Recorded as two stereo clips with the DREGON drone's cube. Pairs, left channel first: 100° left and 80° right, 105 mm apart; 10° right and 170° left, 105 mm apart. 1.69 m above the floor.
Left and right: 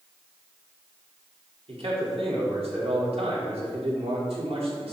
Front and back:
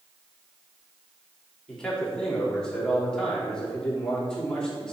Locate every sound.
1.7 s a man speaking: 95° right, 4 m